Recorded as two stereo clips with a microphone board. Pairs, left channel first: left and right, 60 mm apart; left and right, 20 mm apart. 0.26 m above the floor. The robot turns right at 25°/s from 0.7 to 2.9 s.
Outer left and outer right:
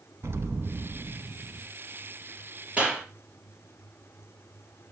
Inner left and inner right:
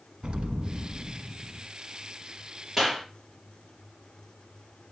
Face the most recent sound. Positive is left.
turn(degrees=-15)  # may be behind; listen again after turning